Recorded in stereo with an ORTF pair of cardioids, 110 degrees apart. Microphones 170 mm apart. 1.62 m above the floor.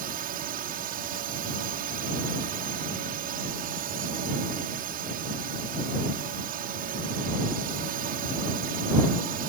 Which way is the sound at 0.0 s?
65° right.